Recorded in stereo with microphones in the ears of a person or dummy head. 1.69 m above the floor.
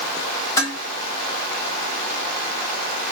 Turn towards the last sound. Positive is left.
turn(degrees=25)  # may be behind; listen again after turning